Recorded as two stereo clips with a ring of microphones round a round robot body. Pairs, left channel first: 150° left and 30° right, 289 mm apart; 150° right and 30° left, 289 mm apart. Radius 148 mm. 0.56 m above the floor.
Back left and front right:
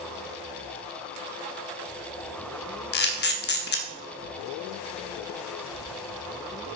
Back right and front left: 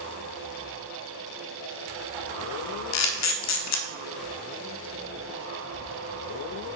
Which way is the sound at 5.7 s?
10° right.